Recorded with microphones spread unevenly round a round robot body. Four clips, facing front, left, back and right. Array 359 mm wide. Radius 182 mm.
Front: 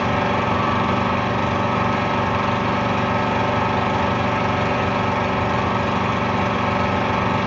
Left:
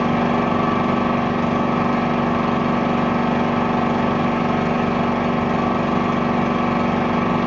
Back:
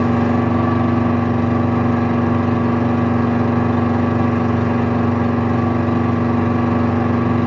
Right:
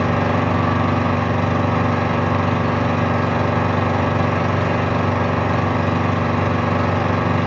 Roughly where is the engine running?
Behind right.